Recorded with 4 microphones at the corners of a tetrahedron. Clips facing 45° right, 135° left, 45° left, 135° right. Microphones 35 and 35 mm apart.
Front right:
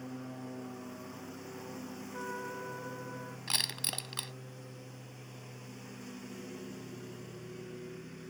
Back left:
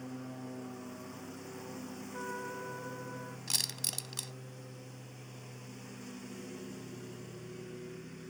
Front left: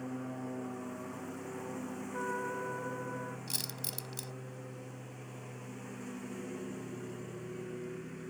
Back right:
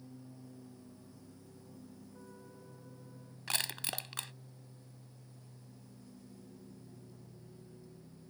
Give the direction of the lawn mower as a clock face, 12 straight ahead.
10 o'clock.